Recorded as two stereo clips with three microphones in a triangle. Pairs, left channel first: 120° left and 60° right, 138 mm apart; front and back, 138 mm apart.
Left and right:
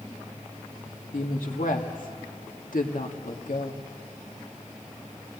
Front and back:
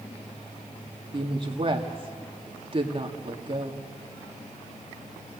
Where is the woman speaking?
130° left, 2 m.